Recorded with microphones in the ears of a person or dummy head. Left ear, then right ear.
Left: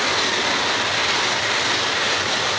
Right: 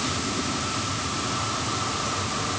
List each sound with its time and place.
Only background noise.